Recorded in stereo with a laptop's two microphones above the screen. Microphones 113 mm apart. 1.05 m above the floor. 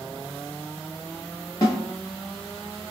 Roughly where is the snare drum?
Left.